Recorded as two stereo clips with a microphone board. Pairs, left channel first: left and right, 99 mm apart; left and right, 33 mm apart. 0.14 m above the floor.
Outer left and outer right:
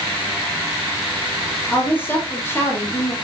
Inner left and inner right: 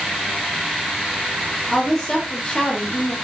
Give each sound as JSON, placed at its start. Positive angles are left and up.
{"t": 1.7, "sound": "a woman speaking", "side_deg": 20, "distance_m": 4.0}